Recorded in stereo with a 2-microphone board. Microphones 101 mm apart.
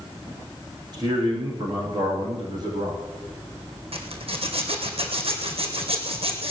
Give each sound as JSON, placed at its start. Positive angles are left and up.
{"t": 0.9, "sound": "a man speaking", "side_deg": -40, "distance_m": 6.0}
{"t": 3.9, "sound": "a zipper", "side_deg": -70, "distance_m": 2.5}